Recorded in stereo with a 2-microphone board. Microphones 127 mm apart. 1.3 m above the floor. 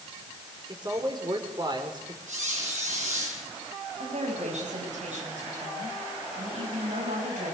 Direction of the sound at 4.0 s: 70° right (ahead or behind).